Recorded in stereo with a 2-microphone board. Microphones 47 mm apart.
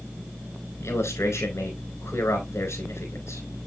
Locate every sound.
0.8 s a man speaking: 85° left, 4 m